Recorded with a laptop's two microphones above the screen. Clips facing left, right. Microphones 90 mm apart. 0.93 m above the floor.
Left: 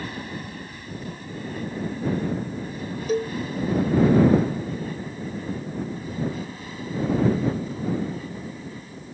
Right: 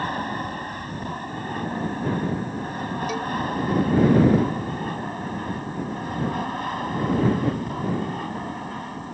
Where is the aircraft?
50° right (ahead or behind); by 9.2 s 60° right (ahead or behind).